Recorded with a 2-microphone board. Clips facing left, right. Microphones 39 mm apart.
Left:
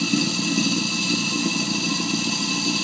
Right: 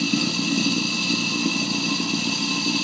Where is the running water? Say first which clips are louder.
Even; 5° right (ahead or behind), 1.0 m.